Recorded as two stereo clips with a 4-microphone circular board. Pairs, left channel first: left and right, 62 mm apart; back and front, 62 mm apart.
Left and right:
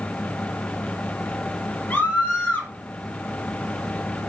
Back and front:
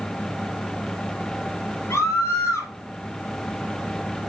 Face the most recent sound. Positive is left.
turn(degrees=145)